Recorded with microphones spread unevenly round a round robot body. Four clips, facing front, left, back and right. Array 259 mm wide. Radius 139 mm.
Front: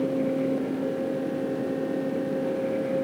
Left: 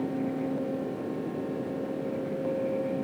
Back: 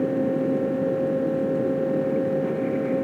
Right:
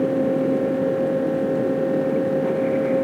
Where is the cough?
I don't hear a cough.